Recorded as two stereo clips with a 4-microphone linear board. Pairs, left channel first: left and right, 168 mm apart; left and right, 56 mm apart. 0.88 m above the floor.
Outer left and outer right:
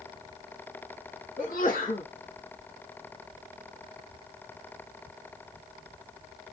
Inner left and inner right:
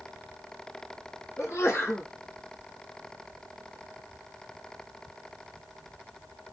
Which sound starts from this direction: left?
A sneeze, at 1.4 s.